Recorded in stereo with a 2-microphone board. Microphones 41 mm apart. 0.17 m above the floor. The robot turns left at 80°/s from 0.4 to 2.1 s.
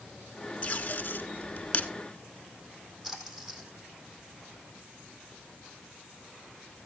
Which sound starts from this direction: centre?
A splash, at 3.0 s.